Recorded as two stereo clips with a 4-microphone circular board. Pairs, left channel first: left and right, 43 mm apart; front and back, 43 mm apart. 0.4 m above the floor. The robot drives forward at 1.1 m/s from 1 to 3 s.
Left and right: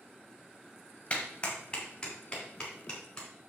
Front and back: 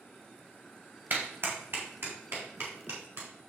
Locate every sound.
1.1 s a clap: 150° left, 1.9 m; by 3.3 s 165° left, 4 m